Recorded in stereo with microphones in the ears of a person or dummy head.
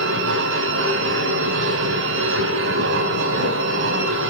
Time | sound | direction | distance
0.0 | a machine running | 75° right (ahead or behind) | 3.5 m